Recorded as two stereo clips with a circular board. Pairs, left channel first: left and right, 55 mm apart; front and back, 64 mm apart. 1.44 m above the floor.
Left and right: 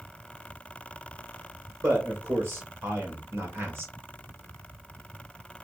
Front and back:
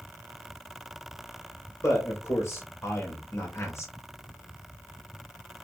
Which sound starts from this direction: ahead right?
A man speaking, at 1.8 s.